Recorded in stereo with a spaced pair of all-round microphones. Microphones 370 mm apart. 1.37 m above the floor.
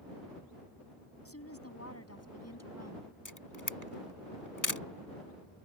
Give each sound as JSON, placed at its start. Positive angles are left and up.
{"t": 1.2, "sound": "a woman speaking", "side_deg": 40}
{"t": 3.2, "sound": "a camera shutter", "side_deg": 55}